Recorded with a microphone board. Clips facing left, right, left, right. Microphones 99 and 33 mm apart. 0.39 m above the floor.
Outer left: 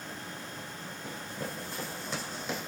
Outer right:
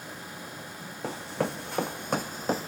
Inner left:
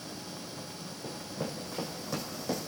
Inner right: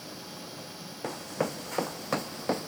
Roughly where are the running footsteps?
Right.